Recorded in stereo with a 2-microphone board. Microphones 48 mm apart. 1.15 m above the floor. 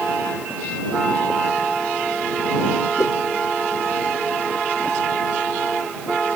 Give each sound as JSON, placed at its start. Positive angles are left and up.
{"t": 3.0, "sound": "a whoosh", "side_deg": 85}